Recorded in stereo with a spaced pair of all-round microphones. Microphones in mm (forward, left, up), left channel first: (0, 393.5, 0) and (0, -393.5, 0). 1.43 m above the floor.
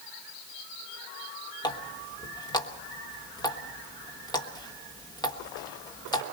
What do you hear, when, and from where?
1.6 s a running tap: 5° left (ahead or behind), 1.3 m